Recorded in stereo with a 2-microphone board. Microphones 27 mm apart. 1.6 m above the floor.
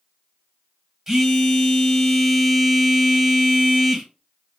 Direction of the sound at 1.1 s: 15° right (ahead or behind).